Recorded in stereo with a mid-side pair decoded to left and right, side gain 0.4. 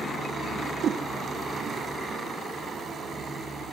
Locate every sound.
0.6 s a whoosh: 60° right, 1.4 m